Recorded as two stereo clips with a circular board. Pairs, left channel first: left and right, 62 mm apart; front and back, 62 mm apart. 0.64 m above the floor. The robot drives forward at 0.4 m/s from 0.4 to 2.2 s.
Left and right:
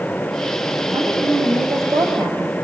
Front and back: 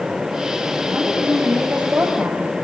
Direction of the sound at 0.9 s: 110° right.